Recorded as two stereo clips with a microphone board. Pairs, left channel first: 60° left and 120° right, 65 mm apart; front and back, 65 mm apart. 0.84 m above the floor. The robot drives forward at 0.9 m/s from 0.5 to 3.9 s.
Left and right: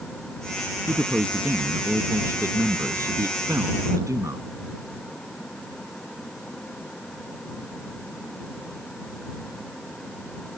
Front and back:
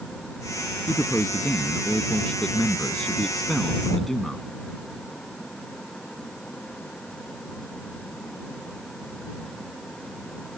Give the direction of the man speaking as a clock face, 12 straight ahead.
2 o'clock.